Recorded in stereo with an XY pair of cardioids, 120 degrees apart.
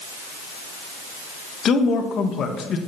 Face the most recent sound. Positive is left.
turn(degrees=50)